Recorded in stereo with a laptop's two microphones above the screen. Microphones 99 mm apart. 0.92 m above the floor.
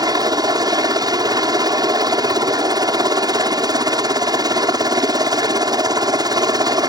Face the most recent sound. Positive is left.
turn(degrees=-40)  # may be behind; listen again after turning